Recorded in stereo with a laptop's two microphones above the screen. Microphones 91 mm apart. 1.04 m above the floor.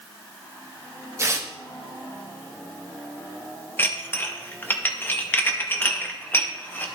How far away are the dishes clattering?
About 0.7 m.